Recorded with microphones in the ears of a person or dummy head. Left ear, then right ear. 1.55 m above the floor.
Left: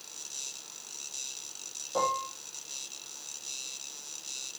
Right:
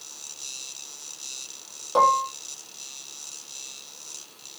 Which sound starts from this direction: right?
Dishes clattering, at 1.9 s.